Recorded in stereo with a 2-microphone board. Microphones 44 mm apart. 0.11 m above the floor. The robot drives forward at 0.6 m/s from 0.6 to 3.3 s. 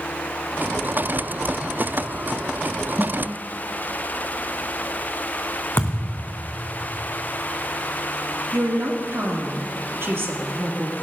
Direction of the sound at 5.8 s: 60° left (ahead or behind).